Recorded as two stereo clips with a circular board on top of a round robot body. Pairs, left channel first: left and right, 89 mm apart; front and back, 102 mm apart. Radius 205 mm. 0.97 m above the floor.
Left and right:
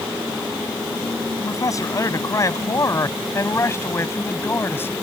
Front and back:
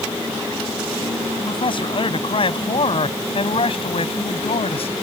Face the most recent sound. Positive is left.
turn(degrees=25)